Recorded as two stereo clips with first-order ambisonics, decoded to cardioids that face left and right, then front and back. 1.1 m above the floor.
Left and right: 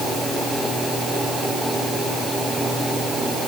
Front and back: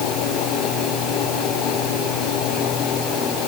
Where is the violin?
No violin in this recording.